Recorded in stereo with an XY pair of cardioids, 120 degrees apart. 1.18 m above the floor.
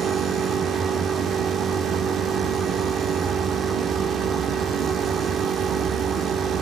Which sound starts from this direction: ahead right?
A machine running, at 0.0 s.